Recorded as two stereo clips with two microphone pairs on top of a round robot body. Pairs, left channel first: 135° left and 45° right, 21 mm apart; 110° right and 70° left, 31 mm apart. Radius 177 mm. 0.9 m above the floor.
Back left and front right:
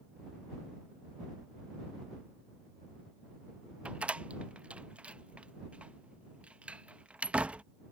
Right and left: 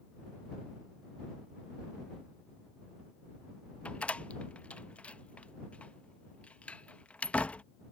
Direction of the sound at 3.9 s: 60° right.